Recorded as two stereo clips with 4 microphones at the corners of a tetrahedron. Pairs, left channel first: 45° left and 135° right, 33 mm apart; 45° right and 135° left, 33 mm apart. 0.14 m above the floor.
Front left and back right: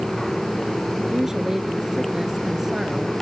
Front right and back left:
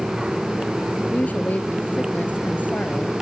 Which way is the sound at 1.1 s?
60° right.